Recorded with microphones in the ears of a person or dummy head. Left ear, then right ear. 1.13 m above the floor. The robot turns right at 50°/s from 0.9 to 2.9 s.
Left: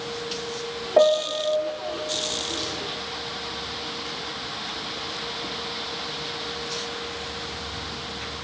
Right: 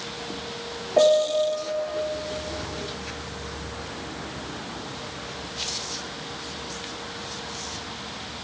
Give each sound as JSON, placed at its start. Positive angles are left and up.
{"t": 1.0, "sound": "a piano", "side_deg": 40, "distance_m": 0.6}